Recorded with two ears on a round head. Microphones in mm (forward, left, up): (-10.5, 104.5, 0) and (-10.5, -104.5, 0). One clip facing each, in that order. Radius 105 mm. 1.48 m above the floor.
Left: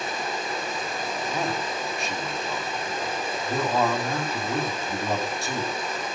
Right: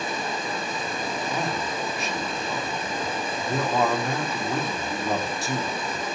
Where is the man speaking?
Centre (ahead or behind), 4 m.